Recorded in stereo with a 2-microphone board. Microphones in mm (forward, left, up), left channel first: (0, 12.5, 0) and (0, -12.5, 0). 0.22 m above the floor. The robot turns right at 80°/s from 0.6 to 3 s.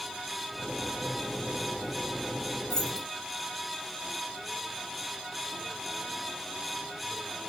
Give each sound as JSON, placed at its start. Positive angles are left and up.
{"t": 2.7, "sound": "keys jangling", "side_deg": 15, "distance_m": 2.0}